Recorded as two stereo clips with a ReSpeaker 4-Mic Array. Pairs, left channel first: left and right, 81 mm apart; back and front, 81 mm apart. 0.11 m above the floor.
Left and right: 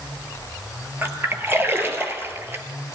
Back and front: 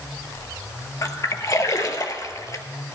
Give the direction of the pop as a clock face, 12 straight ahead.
No pop in this recording.